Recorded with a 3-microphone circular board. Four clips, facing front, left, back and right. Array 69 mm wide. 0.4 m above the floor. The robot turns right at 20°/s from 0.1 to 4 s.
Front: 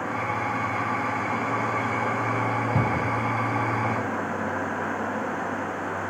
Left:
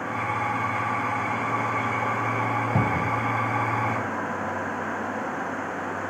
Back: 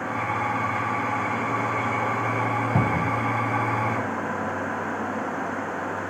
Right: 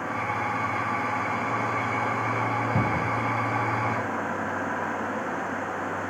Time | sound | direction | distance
2.8 | a cupboard door | 145° left | 1.5 m